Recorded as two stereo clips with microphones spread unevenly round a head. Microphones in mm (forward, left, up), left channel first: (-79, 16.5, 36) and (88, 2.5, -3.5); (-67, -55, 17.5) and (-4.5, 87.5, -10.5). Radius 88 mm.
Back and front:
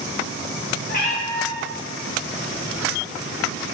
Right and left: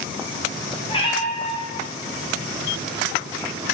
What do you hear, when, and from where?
0.9 s a cat meowing: 160° right, 0.7 m